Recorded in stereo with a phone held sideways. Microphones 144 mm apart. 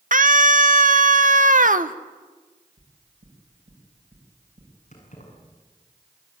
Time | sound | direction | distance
0.1 | a scream | 65° right (ahead or behind) | 1.2 m
2.8 | knocking | 85° right | 5.5 m
4.9 | keys jangling | 55° left (ahead or behind) | 7.5 m